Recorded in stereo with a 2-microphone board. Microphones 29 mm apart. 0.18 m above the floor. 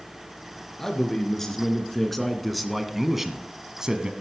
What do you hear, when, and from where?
0.8 s a man speaking: 15° left (ahead or behind), 3 m; by 4.1 s 25° right (ahead or behind), 1.3 m